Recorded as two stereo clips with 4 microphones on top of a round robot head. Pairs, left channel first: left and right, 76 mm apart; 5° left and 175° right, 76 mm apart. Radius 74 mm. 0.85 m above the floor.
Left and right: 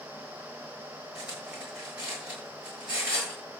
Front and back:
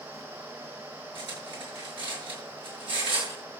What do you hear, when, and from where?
1.1 s cutlery clinking: 170° right, 8.5 m